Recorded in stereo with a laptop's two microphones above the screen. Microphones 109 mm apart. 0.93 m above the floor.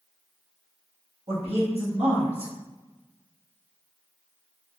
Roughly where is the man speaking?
Right.